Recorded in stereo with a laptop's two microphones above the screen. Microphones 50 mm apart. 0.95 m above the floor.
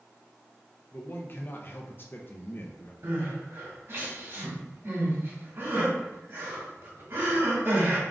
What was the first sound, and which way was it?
A man speaking, 40° left (ahead or behind).